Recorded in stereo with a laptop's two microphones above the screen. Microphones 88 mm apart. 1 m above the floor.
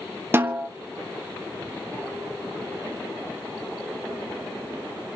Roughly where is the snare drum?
Right.